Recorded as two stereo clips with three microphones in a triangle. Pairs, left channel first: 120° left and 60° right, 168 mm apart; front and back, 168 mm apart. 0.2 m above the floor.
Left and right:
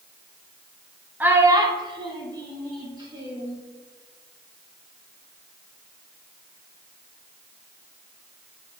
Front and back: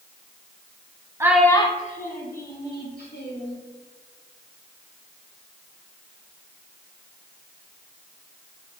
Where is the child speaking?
130° right, 0.8 m; by 3.6 s 10° left, 3.5 m.